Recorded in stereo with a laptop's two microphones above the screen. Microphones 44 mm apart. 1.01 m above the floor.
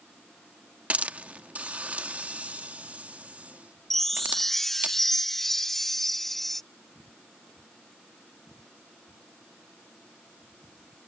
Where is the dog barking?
I don't hear a dog barking.